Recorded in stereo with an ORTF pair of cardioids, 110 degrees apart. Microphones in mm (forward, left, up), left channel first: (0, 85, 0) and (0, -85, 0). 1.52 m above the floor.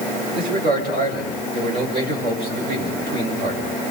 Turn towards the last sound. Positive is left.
turn(degrees=-65)